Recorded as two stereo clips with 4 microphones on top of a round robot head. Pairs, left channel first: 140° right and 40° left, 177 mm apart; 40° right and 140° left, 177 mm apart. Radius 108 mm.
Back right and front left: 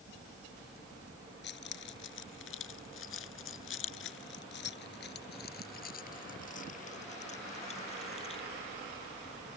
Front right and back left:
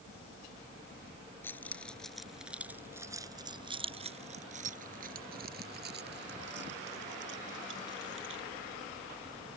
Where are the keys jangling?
115° right; by 8.5 s 160° left.